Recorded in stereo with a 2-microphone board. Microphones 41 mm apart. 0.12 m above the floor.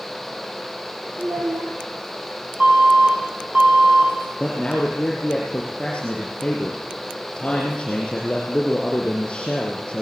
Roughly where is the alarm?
Right.